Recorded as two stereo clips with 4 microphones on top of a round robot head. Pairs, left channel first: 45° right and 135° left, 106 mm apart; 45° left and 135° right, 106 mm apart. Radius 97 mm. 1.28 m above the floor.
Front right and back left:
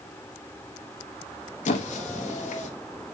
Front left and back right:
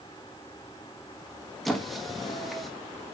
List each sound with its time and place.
1.6 s a squeak: 45° right, 1.3 m